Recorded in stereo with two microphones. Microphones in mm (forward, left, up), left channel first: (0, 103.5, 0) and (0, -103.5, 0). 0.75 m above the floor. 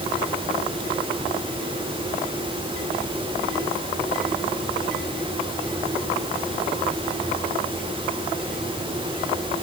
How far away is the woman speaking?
I don't hear a woman speaking.